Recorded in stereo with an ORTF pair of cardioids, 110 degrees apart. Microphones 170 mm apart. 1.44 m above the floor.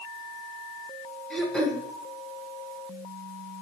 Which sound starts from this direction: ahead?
Throat clearing, at 1.3 s.